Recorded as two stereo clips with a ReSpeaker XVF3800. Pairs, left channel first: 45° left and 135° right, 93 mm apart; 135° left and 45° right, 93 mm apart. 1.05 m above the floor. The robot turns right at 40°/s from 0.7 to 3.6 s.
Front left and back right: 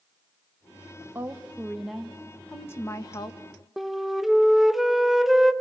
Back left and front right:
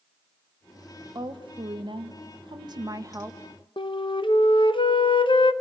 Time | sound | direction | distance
1.1 | a woman speaking | 75° right | 1.4 m
3.8 | a flute | 135° left | 1.0 m